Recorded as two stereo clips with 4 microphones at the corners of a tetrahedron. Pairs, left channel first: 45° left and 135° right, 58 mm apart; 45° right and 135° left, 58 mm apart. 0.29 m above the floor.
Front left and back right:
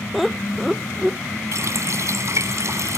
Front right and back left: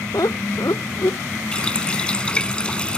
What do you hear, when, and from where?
0.1 s laughter: 50° right
1.5 s a running tap: 115° right